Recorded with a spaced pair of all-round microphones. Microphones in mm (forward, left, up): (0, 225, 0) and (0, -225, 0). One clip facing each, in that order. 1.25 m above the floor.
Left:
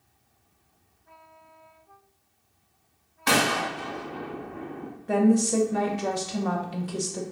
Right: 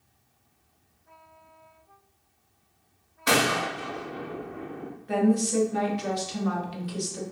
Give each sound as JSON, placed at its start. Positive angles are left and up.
{"t": 3.3, "sound": "a gunshot", "side_deg": 10, "distance_m": 0.6}
{"t": 5.1, "sound": "a woman speaking", "side_deg": 65, "distance_m": 0.8}